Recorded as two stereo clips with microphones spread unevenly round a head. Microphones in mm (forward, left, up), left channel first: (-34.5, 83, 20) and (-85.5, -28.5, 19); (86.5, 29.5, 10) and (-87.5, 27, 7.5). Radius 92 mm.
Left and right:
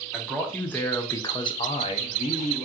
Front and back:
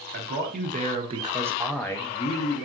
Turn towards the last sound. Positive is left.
turn(degrees=35)